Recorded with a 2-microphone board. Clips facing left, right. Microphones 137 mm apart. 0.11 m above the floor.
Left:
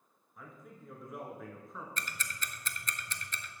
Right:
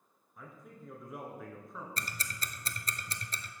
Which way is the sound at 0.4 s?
Centre (ahead or behind).